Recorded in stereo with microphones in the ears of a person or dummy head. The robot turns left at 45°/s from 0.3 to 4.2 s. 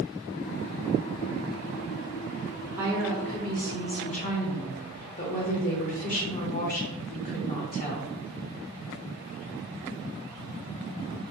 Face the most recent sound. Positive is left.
turn(degrees=130)